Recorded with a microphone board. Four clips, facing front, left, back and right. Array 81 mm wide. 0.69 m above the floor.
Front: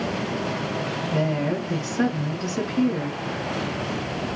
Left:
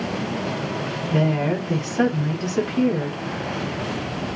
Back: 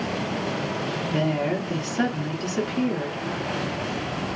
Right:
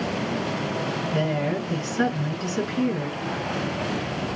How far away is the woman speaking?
About 5 m.